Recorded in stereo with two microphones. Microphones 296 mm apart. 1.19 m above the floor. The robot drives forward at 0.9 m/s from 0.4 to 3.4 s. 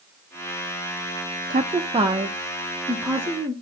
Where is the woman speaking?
30° right (ahead or behind), 0.5 m; by 3.5 s 5° right (ahead or behind), 2 m.